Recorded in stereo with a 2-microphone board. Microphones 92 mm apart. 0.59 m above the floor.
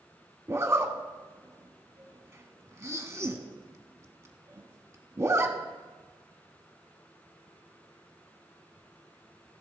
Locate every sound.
0.5 s a zipper: 30° right (ahead or behind), 1.0 m